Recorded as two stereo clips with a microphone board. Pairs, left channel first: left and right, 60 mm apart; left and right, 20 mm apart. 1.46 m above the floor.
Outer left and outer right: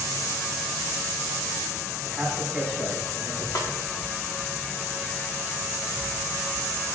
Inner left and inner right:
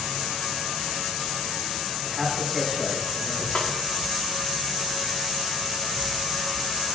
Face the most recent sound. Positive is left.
turn(degrees=75)  # may be behind; listen again after turning